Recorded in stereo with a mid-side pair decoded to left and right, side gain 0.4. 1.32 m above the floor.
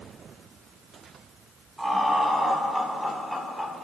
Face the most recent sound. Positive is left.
turn(degrees=10)